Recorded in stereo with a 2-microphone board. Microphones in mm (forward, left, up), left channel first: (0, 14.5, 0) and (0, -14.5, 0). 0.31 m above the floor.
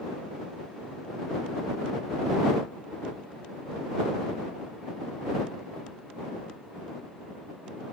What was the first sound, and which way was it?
Only background noise.